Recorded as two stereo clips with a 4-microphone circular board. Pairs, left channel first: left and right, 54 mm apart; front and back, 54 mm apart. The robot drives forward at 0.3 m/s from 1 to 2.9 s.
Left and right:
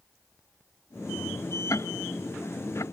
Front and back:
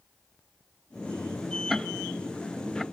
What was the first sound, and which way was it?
Ticking, 90° left.